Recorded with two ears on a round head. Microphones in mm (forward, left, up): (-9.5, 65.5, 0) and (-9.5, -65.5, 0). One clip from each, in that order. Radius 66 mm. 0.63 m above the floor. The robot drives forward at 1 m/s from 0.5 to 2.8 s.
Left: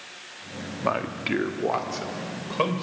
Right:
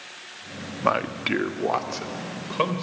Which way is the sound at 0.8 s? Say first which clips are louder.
Right 3 dB; 30° right (ahead or behind).